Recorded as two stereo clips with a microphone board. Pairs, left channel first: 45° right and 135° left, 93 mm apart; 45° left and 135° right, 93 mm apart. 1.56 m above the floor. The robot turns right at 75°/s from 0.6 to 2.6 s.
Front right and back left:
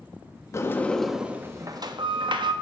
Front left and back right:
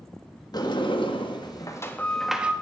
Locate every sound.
0.5 s a sliding door: 10° left, 1.4 m; by 2.5 s 155° left, 1.4 m